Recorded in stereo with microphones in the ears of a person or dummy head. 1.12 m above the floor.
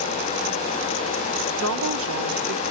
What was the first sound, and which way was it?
A woman speaking, 75° right (ahead or behind).